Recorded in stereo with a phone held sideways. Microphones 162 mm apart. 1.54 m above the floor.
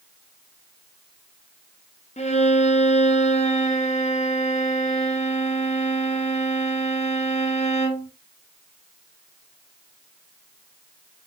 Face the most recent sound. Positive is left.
turn(degrees=45)  # may be behind; listen again after turning